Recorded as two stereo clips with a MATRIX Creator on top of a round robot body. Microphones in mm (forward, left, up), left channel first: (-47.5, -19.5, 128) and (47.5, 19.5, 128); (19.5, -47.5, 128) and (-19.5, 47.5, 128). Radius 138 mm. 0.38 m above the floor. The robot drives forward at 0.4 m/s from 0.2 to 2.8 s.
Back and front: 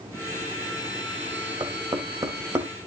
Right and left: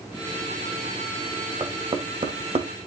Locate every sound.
1.6 s knocking: 70° left, 1.9 m; by 2.7 s 85° left, 1.8 m